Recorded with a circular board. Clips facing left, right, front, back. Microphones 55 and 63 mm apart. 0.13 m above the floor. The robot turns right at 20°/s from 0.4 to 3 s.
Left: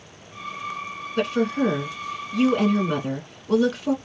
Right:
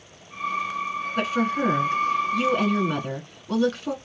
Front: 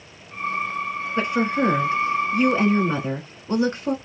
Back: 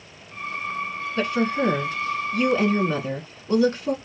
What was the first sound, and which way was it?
A woman speaking, 30° right.